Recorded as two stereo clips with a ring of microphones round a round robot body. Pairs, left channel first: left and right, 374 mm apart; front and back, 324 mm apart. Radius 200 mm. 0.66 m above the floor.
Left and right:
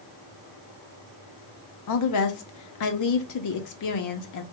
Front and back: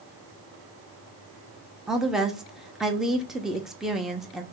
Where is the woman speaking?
90° left, 0.8 m.